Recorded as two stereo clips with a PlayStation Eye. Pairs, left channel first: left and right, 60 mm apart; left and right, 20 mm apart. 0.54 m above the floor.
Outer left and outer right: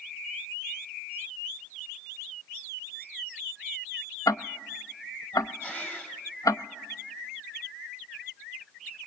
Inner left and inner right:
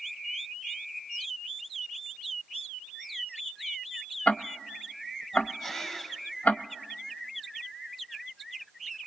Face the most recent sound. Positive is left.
turn(degrees=30)  # may be behind; listen again after turning